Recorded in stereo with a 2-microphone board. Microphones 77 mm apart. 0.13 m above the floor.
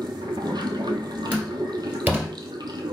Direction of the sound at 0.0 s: 70° right (ahead or behind).